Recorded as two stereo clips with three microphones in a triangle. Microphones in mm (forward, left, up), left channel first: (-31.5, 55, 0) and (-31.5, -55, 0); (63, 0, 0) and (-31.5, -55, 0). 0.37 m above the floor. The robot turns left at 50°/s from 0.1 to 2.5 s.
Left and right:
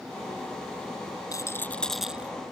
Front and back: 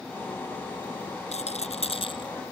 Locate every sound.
1.3 s a rattle: 35° left; by 2.5 s 25° right